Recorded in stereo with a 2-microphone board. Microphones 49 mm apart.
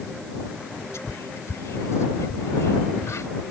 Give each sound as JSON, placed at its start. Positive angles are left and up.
{"t": 0.9, "sound": "whispering", "side_deg": 80}